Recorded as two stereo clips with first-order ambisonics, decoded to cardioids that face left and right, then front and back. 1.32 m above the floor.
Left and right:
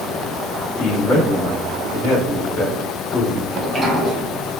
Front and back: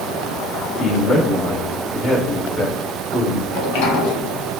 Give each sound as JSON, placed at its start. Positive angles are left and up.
{"t": 0.8, "sound": "a man speaking", "azimuth_deg": 55, "distance_m": 1.8}
{"t": 3.5, "sound": "a sliding door", "azimuth_deg": 5, "distance_m": 0.8}